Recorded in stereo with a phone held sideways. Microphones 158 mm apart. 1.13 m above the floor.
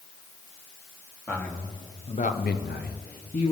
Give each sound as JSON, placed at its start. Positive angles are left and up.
{"t": 1.3, "sound": "a man speaking", "side_deg": 10, "distance_m": 1.5}